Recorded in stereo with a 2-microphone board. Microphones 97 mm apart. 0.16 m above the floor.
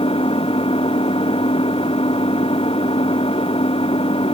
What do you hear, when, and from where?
0.0 s an engine running: 85° left